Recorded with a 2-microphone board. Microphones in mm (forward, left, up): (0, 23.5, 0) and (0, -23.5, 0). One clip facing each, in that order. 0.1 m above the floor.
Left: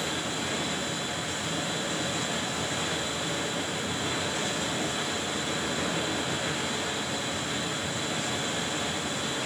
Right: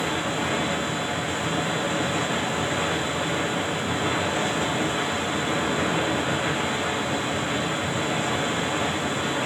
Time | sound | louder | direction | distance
0.0 | running water | right 6 dB | 25° right (ahead or behind) | 1.1 m